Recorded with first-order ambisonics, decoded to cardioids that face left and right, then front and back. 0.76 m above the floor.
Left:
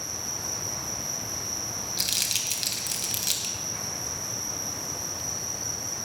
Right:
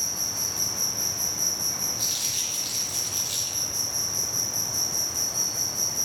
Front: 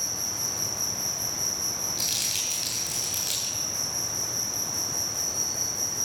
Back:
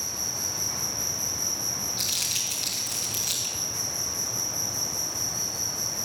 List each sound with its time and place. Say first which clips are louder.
0.0 s an insect: right 4 dB, even; 80° right, 3 m
2.0 s crumpling: left 5 dB, even; 85° left, 3 m